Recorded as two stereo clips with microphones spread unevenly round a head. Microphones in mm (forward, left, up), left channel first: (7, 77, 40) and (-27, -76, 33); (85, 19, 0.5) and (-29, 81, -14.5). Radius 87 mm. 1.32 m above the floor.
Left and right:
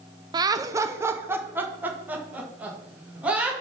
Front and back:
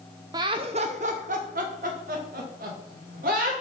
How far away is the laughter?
About 0.5 m.